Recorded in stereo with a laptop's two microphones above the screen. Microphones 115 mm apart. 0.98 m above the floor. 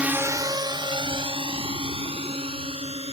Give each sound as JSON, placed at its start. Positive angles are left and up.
{"t": 0.0, "sound": "a drone", "side_deg": -10}